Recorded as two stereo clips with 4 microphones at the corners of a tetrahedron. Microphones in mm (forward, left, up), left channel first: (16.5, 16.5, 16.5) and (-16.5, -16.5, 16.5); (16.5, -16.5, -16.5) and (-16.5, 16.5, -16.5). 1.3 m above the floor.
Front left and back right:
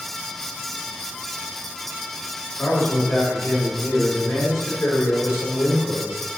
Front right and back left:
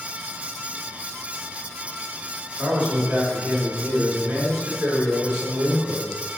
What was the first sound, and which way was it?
A man speaking, 55° left.